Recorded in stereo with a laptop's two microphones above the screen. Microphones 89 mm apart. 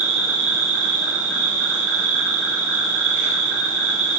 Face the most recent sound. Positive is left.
turn(degrees=-20)  # may be behind; listen again after turning